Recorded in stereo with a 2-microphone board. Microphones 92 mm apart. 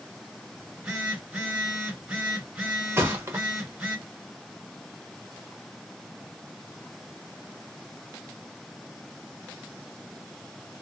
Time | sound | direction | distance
0.6 | a phone buzzing | 5° right (ahead or behind) | 1.7 m
3.0 | a thud | 25° right (ahead or behind) | 0.9 m